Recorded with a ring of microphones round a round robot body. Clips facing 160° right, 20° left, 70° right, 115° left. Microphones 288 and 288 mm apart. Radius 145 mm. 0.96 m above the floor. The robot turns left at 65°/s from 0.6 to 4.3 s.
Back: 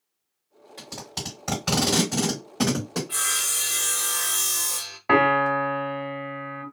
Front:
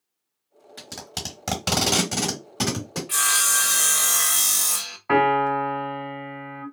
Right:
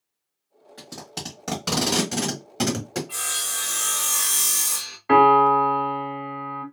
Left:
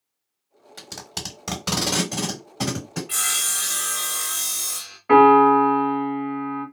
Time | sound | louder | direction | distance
0.8 | tape being pulled | back 1 dB, right 2 dB | 85° left | 1.2 m
3.1 | sawing | front 3 dB, even | 65° left | 0.6 m
5.1 | a piano | even, left 5 dB | 145° right | 1.1 m